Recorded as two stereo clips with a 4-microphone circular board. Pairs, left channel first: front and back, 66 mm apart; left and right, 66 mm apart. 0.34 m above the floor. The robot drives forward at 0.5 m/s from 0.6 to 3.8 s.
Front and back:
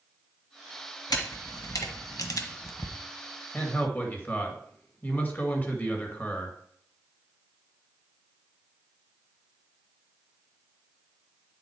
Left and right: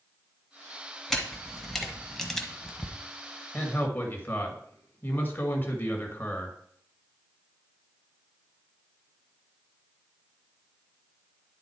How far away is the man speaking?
About 1.8 m.